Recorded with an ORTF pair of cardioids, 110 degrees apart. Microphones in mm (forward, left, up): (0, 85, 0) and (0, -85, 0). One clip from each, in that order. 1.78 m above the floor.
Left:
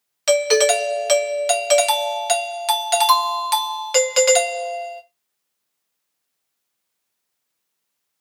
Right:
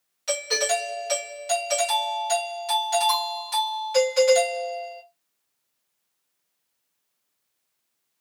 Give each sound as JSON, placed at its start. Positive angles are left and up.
{"t": 0.3, "sound": "a doorbell", "azimuth_deg": 70, "distance_m": 0.5}